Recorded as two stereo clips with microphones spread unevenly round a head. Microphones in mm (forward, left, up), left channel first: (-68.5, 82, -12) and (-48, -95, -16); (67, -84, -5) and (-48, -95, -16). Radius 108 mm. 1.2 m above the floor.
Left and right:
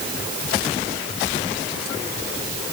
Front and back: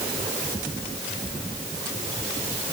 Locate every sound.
Only background noise.